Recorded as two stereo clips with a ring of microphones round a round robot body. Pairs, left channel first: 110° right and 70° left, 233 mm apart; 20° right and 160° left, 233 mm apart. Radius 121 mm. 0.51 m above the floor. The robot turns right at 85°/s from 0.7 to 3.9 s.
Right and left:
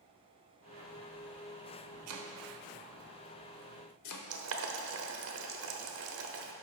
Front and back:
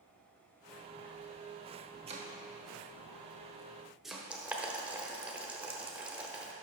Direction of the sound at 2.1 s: 90° left.